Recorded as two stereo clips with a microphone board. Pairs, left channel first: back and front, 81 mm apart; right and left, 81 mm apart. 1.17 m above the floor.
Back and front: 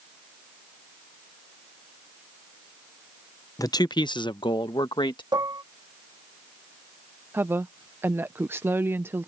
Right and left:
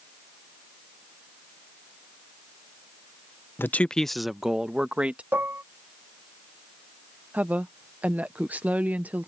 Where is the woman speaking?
35° left.